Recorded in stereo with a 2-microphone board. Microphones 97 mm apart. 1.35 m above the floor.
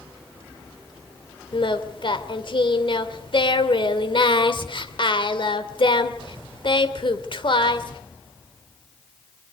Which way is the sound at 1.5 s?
55° left (ahead or behind).